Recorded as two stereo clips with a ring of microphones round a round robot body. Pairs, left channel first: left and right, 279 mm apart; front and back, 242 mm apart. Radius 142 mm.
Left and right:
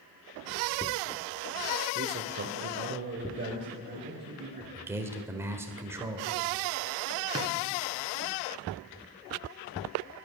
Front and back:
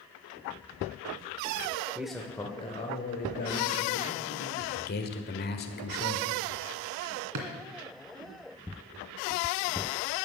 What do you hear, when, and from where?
1.9 s a man speaking: 100° right, 1.0 m; by 4.7 s 35° right, 2.5 m
4.8 s a man speaking: 15° right, 1.4 m
7.3 s a drawer: 165° right, 2 m